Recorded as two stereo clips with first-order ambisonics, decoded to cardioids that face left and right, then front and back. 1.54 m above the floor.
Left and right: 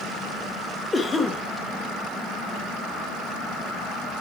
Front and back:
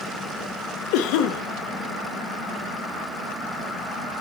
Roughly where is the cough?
Ahead.